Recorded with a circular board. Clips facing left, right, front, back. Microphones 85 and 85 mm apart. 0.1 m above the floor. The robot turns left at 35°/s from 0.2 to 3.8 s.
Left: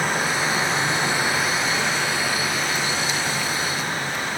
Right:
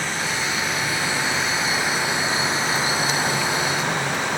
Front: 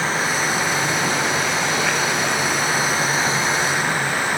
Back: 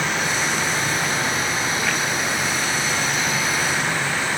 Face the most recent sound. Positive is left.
turn(degrees=-75)